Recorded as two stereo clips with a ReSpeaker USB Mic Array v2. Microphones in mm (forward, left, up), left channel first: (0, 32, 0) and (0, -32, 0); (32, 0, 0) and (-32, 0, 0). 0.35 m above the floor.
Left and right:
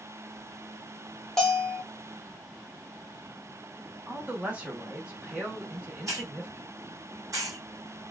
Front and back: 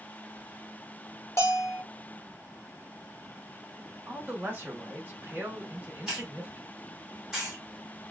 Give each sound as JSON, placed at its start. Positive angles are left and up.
{"t": 1.4, "sound": "a bell", "azimuth_deg": 10, "distance_m": 1.0}
{"t": 4.1, "sound": "a man speaking", "azimuth_deg": -145, "distance_m": 1.7}
{"t": 6.1, "sound": "a hiss", "azimuth_deg": -100, "distance_m": 1.8}